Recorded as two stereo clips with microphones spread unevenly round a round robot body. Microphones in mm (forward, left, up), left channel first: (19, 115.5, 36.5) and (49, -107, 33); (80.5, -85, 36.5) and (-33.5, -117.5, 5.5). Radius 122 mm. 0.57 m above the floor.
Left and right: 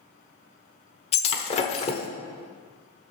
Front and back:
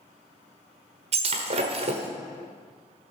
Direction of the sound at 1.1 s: 160° left.